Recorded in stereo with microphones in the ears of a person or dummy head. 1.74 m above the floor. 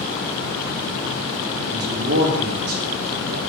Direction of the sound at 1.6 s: 85° right.